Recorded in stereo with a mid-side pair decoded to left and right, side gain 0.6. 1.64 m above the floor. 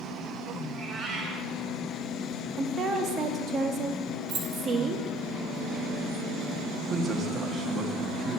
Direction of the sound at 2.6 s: 45° right.